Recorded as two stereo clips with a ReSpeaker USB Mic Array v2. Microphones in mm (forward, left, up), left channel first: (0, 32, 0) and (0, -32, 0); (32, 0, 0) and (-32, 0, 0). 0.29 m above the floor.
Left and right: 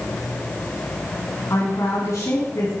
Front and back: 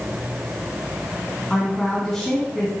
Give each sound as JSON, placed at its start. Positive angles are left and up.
{"t": 1.5, "sound": "a woman speaking", "azimuth_deg": 80, "distance_m": 2.5}